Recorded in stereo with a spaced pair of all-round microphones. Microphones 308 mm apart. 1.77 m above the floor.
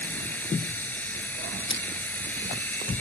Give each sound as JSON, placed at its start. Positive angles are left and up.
{"t": 0.0, "sound": "a machine running", "side_deg": 5}
{"t": 1.7, "sound": "crushing", "side_deg": 40}